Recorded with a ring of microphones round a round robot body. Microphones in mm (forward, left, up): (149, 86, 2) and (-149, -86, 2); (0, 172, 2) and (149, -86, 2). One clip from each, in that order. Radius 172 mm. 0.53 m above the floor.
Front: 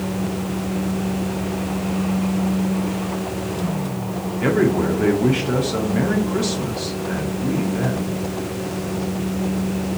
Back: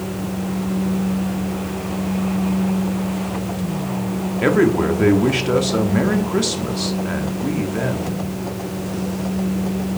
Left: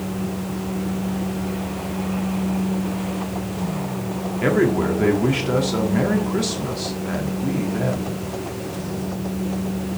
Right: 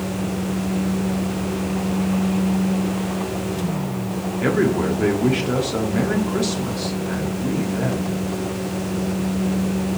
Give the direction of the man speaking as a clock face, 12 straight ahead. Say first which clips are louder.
Back 3 dB, left 1 dB; 5 o'clock.